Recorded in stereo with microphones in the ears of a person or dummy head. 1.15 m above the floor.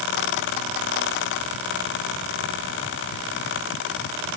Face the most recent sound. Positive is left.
No sound to turn to.